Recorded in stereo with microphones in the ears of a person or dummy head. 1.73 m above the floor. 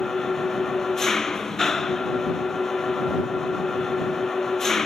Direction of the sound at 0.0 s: Centre (ahead or behind).